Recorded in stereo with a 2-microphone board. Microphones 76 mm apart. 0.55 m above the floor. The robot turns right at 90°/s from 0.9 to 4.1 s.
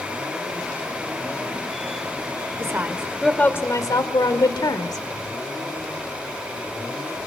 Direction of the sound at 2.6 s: 50° right.